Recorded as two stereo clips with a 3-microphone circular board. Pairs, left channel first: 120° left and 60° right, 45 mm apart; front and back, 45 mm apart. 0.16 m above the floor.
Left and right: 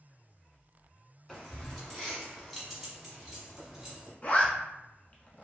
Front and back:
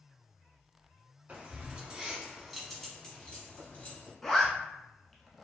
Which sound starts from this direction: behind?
Keys jangling, at 1.3 s.